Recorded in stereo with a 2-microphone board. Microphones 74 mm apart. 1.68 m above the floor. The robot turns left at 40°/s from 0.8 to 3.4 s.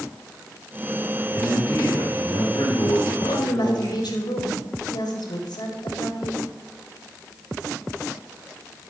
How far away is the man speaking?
About 4.5 m.